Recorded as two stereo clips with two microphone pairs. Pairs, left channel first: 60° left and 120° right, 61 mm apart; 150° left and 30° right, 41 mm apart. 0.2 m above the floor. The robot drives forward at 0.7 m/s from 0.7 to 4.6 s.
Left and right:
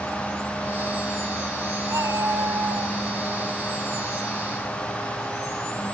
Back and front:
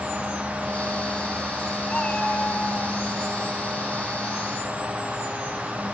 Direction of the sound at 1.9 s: 135° right.